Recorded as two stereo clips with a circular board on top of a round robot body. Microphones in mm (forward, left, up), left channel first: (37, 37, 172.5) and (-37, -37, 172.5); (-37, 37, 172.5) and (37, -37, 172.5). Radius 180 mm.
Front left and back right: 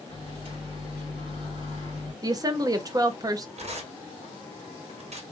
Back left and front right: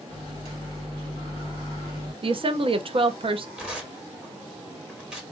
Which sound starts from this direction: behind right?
Tearing paper, at 3.6 s.